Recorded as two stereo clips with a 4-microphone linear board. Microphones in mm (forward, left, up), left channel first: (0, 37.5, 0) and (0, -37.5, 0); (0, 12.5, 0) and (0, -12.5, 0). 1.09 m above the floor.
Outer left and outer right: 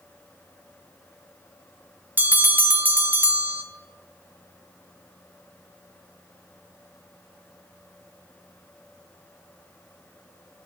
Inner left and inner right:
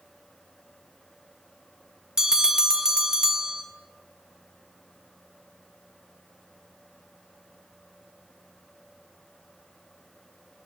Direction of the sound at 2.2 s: 25° right (ahead or behind).